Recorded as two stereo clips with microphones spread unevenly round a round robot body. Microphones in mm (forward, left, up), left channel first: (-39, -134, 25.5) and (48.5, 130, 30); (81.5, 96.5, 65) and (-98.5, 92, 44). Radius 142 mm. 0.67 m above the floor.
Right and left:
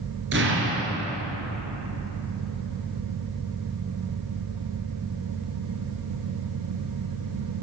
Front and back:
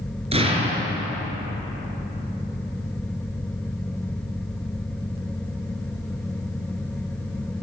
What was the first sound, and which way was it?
An explosion, 125° left.